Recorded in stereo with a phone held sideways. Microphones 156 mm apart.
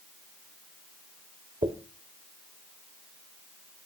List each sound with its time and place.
1.6 s a dropped coin: 35° right (ahead or behind), 1.5 m